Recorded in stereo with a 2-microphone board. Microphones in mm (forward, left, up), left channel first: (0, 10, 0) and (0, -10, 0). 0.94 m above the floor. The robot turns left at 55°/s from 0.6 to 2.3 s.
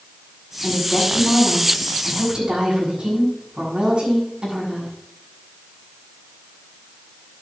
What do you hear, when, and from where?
0.6 s a woman speaking: 45° left, 6.5 m; by 4.9 s 45° right, 6.5 m